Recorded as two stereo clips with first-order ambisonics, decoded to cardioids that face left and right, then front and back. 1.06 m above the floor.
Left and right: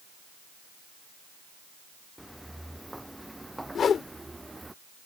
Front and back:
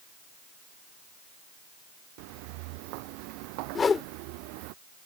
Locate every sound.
2.2 s footsteps: straight behind; by 4.8 s 175° right
3.8 s a whoosh: 55° left